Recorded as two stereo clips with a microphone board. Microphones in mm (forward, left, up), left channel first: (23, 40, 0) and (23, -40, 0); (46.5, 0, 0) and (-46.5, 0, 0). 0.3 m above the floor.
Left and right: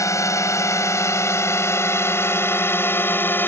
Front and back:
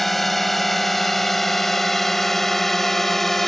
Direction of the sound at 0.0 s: 85° left.